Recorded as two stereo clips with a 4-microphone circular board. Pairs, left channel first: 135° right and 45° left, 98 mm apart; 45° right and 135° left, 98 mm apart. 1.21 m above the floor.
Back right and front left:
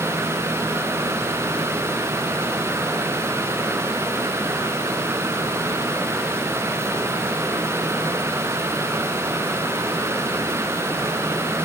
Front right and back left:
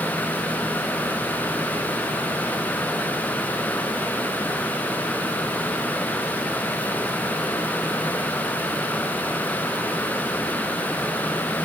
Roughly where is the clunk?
I don't hear a clunk.